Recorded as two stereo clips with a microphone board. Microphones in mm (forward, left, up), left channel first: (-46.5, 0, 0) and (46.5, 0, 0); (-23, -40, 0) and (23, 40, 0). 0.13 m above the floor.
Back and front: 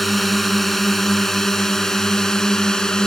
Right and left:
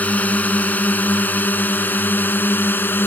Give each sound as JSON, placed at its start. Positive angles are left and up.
{"t": 0.0, "sound": "a drone", "azimuth_deg": -95}